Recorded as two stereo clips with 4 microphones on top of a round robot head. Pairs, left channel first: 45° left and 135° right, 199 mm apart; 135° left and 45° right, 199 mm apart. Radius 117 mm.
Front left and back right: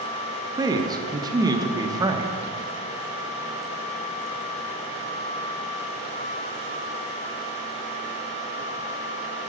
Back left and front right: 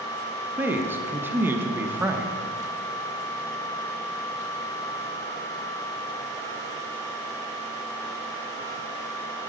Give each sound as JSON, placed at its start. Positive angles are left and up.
{"t": 0.6, "sound": "a man speaking", "azimuth_deg": -105, "distance_m": 0.9}